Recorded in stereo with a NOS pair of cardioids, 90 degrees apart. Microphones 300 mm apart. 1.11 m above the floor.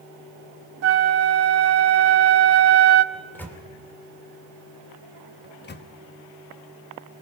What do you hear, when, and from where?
0.8 s a flute: 55° right, 0.9 m
3.1 s a microwave: 5° left, 3 m
5.4 s a microwave: 35° left, 1.3 m